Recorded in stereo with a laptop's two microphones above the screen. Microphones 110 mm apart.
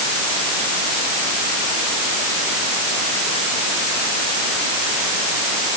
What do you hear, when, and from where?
Only background noise.